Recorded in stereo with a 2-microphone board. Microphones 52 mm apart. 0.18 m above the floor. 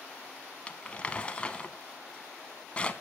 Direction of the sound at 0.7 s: 20° left (ahead or behind).